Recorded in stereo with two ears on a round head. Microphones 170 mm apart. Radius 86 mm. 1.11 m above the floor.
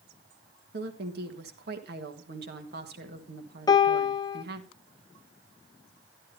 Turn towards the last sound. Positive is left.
turn(degrees=20)  # may be behind; listen again after turning